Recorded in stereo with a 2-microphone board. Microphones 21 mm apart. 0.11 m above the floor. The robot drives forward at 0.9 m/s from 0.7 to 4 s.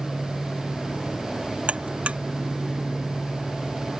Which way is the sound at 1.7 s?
75° right (ahead or behind).